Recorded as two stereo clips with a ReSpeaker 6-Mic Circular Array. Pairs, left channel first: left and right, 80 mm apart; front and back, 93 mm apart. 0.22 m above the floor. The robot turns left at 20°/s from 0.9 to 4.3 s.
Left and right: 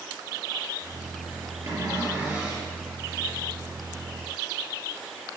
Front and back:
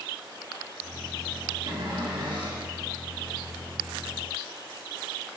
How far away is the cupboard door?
About 4 m.